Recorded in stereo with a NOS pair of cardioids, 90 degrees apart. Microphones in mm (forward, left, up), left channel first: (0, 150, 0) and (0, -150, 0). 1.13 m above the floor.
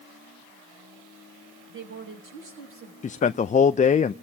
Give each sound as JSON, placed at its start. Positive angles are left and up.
{"t": 1.7, "sound": "a woman speaking", "azimuth_deg": -45, "distance_m": 6.5}
{"t": 3.0, "sound": "a man speaking", "azimuth_deg": 25, "distance_m": 0.5}